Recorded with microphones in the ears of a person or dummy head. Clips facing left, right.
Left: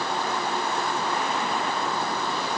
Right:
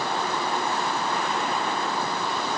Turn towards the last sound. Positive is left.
No sound to turn to.